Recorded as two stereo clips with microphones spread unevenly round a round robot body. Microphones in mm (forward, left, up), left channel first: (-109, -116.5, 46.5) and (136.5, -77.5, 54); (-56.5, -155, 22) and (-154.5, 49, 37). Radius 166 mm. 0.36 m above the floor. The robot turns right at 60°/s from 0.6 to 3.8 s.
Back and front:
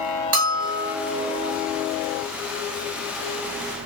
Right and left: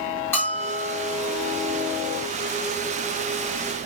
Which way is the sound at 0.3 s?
15° left.